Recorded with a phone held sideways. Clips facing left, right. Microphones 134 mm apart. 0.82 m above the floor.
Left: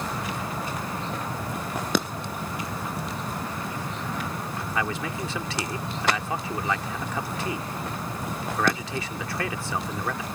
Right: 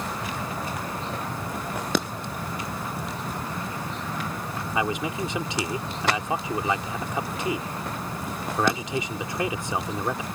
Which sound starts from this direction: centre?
A man speaking, at 4.8 s.